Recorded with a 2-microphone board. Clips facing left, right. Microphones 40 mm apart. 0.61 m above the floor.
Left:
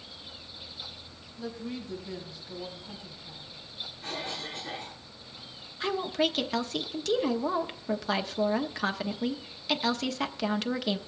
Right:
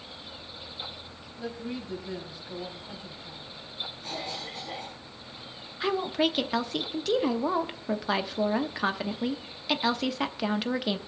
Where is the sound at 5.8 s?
10° right (ahead or behind), 0.8 m.